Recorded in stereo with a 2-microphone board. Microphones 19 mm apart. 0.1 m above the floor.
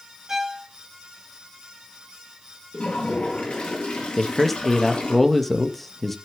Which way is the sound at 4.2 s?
10° left (ahead or behind).